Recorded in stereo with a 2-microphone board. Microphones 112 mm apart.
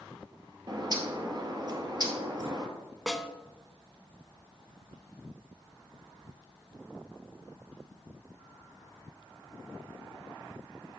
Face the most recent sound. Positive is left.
turn(degrees=0)  # may be behind; listen again after turning